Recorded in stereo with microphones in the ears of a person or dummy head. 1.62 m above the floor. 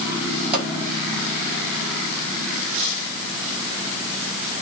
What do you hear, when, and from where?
0.5 s a pop: 30° right (ahead or behind), 5.5 m